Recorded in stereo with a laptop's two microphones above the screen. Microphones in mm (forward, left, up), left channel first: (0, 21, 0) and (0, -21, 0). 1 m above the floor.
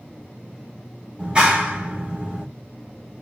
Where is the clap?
20° right (ahead or behind), 1.4 m.